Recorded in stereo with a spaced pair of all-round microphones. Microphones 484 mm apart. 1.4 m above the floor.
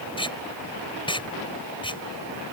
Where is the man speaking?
I don't hear a man speaking.